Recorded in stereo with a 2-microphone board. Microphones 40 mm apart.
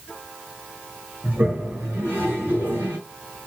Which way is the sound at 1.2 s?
55° right (ahead or behind).